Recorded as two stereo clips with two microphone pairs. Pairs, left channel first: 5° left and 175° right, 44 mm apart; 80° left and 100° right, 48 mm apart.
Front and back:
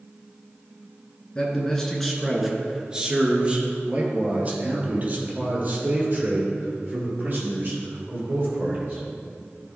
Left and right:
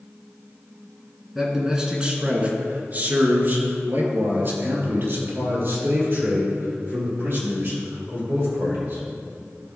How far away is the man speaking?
About 1.5 m.